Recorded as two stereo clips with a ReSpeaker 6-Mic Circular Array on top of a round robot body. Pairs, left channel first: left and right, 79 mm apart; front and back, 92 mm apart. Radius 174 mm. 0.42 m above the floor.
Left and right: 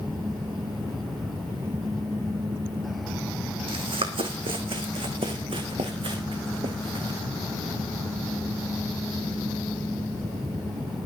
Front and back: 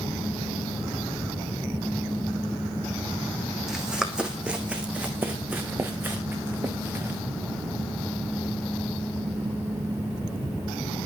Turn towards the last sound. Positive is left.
turn(degrees=-115)